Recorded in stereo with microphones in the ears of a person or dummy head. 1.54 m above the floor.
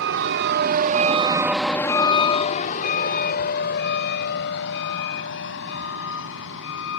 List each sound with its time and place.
0.0 s a vehicle: 70° right (ahead or behind); by 7.0 s 70° left (ahead or behind)